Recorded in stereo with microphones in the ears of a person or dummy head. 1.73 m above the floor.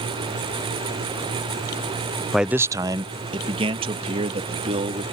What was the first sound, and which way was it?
A man speaking, centre (ahead or behind).